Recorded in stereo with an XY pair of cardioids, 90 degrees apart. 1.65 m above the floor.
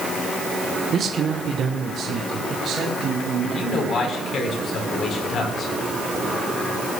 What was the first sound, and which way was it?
A man speaking, 60° right.